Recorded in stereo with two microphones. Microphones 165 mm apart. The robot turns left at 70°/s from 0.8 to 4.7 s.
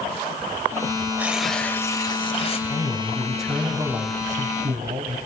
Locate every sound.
1.2 s tearing paper: 160° right, 1.4 m; by 2.6 s 100° left, 1.4 m
2.7 s a man speaking: 50° left, 2.5 m; by 5.2 s 90° right, 2.5 m